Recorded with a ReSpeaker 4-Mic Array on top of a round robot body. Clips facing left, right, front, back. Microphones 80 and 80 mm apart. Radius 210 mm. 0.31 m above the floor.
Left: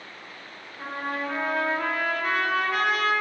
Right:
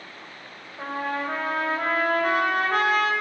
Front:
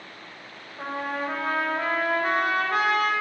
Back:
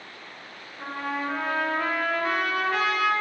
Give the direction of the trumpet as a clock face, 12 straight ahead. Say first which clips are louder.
Right 2 dB, front 1 dB; 1 o'clock.